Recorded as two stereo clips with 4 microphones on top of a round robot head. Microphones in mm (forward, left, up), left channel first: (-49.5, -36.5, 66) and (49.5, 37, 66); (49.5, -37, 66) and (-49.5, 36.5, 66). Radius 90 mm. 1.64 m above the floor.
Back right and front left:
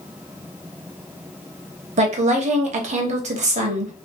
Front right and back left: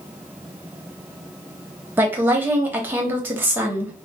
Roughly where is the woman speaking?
Left.